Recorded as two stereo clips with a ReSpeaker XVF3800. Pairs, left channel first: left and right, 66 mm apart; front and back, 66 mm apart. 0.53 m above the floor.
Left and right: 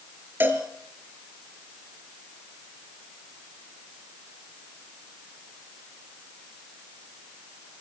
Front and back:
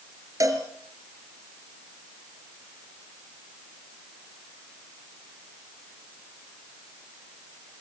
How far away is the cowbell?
About 3.5 m.